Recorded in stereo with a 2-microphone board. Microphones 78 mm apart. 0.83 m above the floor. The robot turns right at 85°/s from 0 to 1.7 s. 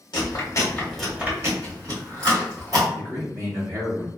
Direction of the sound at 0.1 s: 70° left (ahead or behind).